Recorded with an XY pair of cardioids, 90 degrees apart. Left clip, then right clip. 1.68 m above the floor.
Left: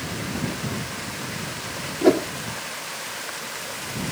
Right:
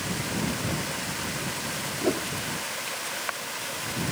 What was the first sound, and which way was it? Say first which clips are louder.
A whoosh: left 10 dB; 70° left.